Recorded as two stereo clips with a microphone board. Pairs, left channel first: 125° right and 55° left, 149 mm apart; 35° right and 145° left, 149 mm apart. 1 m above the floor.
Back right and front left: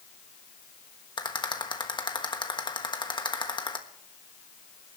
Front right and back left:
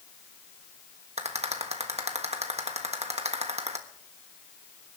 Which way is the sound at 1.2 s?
Straight behind.